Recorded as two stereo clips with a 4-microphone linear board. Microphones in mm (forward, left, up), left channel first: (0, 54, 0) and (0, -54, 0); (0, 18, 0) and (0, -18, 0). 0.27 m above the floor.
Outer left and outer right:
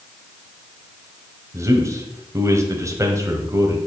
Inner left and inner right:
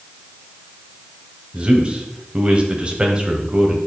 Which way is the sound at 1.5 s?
25° right (ahead or behind).